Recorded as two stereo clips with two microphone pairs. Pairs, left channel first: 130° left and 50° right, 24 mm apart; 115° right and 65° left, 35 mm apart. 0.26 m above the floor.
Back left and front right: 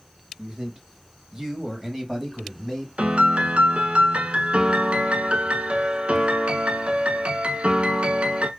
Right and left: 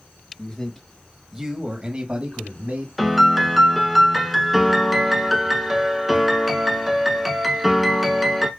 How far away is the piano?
About 0.7 m.